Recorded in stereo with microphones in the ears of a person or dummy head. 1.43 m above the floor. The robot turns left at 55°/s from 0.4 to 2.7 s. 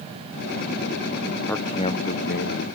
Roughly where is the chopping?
No chopping in this recording.